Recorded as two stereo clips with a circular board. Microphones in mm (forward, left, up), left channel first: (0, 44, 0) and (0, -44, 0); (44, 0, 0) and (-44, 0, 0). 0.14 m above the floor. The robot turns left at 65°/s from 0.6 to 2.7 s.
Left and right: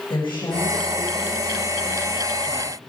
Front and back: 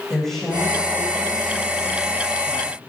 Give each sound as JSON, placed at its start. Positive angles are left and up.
{"t": 0.1, "sound": "a woman speaking", "azimuth_deg": 85, "distance_m": 7.0}